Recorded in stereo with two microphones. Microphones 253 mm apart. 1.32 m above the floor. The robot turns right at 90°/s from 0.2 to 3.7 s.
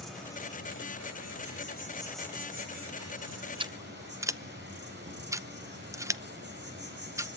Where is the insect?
Straight ahead, 5.5 m; by 7.4 s 45° right, 5.5 m.